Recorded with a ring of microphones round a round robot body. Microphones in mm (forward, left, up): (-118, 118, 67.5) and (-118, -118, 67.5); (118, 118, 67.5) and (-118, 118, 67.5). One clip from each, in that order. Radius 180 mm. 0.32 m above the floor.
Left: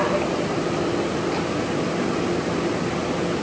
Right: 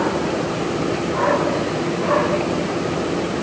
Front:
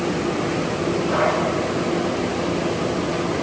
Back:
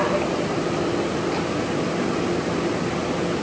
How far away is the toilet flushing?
I don't hear a toilet flushing.